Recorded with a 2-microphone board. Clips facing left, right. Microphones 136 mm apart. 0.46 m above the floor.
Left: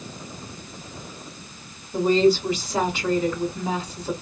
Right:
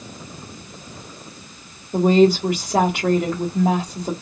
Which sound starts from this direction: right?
A woman speaking, at 1.9 s.